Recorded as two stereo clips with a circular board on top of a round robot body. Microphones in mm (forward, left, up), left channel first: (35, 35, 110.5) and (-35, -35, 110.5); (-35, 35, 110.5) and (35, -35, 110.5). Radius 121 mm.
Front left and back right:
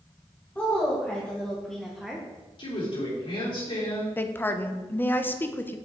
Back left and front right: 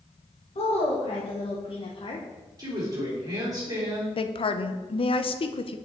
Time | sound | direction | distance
0.6 | a woman speaking | 115° left | 2.0 m
2.6 | a woman speaking | 10° left | 3 m
4.2 | a woman speaking | 115° left | 0.7 m